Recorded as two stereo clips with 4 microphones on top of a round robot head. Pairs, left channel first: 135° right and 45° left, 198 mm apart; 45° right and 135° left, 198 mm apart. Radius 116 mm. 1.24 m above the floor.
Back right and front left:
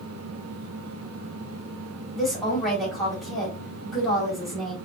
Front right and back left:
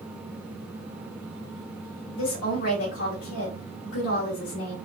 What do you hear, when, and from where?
2.1 s a woman speaking: 45° right, 2 m